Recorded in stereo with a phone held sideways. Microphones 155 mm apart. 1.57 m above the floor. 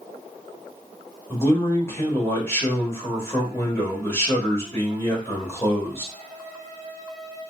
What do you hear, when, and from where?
1.3 s a man speaking: 15° left (ahead or behind), 1.4 m